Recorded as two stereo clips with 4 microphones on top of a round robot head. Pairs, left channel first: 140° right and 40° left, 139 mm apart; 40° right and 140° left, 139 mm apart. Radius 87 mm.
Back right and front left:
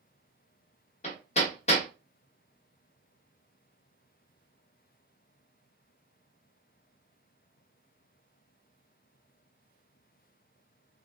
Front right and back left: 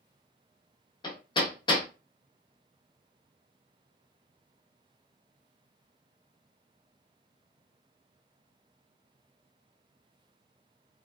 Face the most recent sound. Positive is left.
turn(degrees=-100)